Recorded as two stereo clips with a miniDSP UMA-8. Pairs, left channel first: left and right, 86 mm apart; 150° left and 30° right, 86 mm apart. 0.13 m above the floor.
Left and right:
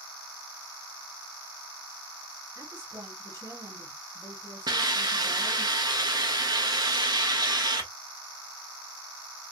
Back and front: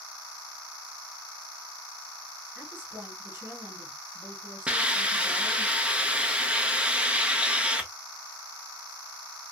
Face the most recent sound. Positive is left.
turn(degrees=-105)